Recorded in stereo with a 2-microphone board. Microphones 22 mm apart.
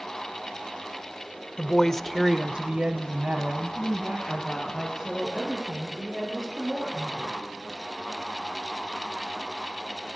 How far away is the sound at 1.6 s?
About 1.1 m.